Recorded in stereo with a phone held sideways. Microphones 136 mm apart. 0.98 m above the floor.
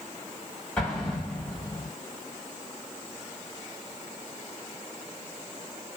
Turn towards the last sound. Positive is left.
turn(degrees=5)  # may be behind; listen again after turning